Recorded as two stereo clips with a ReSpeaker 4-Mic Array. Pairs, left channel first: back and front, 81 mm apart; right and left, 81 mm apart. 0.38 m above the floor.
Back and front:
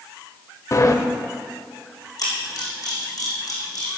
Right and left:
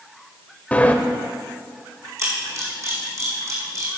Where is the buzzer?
I don't hear a buzzer.